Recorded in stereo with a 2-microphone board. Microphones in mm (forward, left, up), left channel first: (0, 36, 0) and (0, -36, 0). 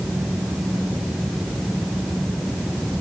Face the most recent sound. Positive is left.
No sound to turn to.